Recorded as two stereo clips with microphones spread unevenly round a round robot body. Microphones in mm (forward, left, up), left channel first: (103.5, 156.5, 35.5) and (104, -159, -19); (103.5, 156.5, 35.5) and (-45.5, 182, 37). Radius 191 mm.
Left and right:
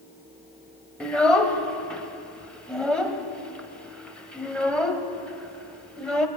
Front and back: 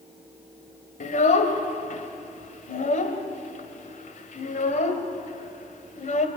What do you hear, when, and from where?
1.0 s a child speaking: 5° right, 1.3 m